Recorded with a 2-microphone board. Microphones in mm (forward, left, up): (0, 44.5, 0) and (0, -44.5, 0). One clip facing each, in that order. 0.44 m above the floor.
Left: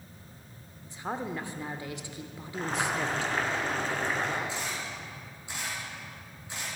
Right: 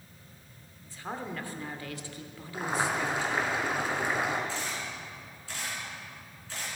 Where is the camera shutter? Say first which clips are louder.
Even; 20° left (ahead or behind), 4.5 m.